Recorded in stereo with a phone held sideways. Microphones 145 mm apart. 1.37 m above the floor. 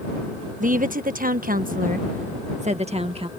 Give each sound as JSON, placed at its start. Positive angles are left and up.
{"t": 0.6, "sound": "a woman speaking", "side_deg": -65}